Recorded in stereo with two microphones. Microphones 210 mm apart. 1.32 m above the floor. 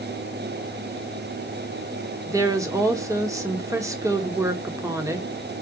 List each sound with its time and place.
2.3 s a woman speaking: 15° right (ahead or behind), 1.0 m